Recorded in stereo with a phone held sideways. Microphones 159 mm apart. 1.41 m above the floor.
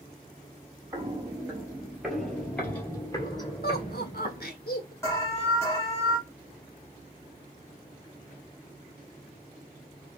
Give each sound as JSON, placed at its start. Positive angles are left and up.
{"t": 0.9, "sound": "footsteps", "side_deg": -25, "distance_m": 1.6}
{"t": 3.6, "sound": "laughter", "side_deg": 80, "distance_m": 1.3}
{"t": 5.0, "sound": "an alarm", "side_deg": 20, "distance_m": 2.0}